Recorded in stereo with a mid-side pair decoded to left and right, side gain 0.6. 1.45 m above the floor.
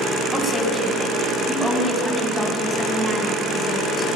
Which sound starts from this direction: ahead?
A woman speaking, at 0.3 s.